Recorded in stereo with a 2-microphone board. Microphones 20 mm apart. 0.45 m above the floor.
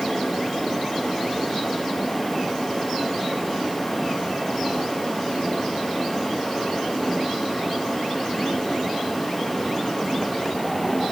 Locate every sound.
Only background noise.